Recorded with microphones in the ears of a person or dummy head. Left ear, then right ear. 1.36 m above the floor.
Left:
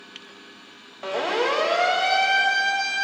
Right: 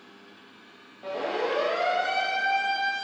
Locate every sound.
1.0 s a siren: 45° left (ahead or behind), 2.5 m; by 3.0 s 25° left (ahead or behind), 3.5 m